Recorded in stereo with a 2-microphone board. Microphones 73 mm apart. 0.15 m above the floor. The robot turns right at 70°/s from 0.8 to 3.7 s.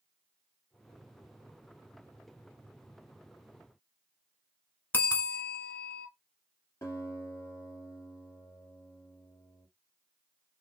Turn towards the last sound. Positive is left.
turn(degrees=40)  # may be behind; listen again after turning